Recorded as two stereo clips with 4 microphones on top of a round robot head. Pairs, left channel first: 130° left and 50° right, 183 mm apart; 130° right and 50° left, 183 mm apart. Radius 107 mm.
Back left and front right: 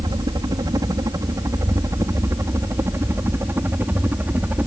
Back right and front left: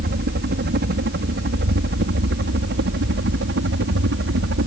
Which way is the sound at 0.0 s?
20° left.